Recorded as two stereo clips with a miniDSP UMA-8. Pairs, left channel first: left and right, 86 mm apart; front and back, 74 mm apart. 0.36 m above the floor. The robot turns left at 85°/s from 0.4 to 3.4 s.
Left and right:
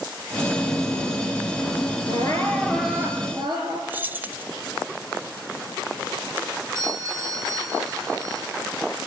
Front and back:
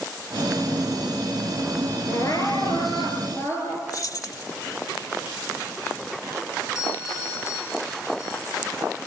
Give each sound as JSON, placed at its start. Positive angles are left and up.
{"t": 2.1, "sound": "crying", "azimuth_deg": 60, "distance_m": 5.0}
{"t": 3.9, "sound": "keys jangling", "azimuth_deg": -25, "distance_m": 1.3}
{"t": 6.8, "sound": "a doorbell", "azimuth_deg": -40, "distance_m": 7.5}